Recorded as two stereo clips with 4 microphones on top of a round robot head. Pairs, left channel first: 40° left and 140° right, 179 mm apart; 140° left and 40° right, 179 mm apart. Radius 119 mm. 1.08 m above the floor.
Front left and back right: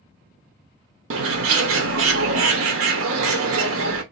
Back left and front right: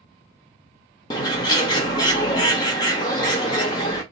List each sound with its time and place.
1.1 s a bird: 150° right, 0.7 m